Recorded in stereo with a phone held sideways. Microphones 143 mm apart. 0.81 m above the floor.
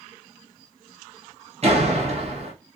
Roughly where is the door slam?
Right.